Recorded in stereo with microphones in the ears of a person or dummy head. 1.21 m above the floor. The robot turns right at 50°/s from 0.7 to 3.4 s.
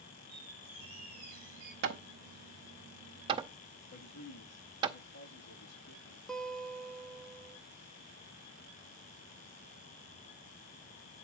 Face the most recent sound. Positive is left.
turn(degrees=0)  # may be behind; listen again after turning